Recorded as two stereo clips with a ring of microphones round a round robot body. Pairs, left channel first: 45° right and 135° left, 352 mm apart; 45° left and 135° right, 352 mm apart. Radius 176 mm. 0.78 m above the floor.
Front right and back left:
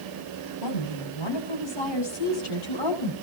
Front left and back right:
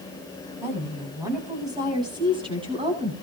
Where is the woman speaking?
50° right, 7.5 m; by 3.1 s 60° right, 8 m.